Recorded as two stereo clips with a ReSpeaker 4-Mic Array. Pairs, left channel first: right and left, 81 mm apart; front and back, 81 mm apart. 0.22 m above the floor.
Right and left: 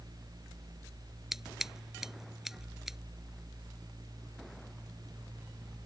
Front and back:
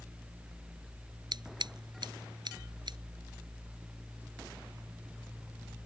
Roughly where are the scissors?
Behind.